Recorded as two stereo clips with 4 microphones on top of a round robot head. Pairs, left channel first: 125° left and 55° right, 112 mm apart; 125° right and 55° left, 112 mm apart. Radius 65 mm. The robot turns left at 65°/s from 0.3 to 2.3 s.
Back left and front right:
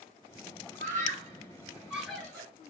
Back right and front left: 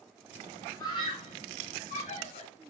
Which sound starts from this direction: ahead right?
A scream, at 0.8 s.